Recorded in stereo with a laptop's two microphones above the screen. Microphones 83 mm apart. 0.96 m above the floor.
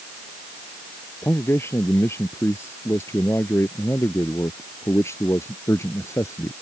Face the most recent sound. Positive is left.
turn(degrees=35)  # may be behind; listen again after turning